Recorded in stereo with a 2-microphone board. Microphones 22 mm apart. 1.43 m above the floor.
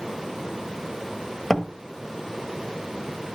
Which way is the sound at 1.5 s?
15° left (ahead or behind).